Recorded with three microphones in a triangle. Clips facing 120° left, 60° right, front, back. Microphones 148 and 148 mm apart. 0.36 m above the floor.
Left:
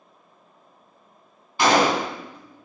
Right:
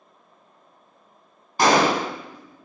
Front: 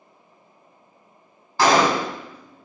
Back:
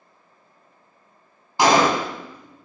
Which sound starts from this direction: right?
A gunshot, at 1.6 s.